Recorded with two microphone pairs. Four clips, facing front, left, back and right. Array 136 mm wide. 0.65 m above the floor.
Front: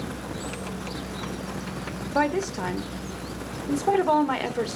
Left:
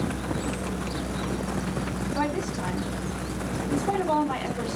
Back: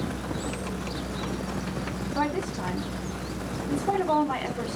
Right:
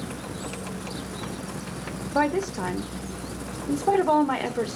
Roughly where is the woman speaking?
Ahead right.